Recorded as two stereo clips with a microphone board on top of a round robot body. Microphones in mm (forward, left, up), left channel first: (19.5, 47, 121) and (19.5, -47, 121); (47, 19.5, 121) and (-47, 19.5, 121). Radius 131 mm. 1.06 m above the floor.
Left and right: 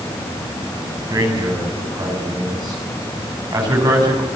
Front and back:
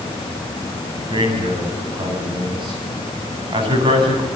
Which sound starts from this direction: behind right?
A man speaking, at 1.1 s.